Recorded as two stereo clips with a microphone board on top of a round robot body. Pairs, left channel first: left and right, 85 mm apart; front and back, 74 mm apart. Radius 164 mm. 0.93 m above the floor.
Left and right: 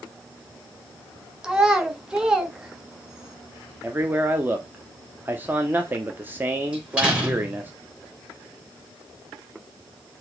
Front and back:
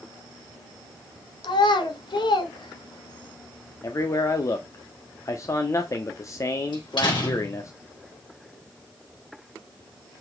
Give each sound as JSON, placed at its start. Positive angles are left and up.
{"t": 1.4, "sound": "a child speaking", "azimuth_deg": -10, "distance_m": 1.3}
{"t": 3.8, "sound": "a man speaking", "azimuth_deg": -30, "distance_m": 1.1}
{"t": 6.7, "sound": "a door slam", "azimuth_deg": -15, "distance_m": 5.0}